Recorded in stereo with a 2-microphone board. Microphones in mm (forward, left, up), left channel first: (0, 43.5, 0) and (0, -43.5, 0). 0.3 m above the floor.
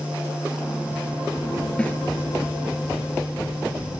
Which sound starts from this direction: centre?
A snare drum, at 1.8 s.